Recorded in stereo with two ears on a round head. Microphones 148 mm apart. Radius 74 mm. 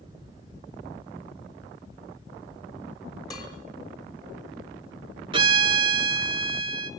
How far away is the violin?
About 1.5 m.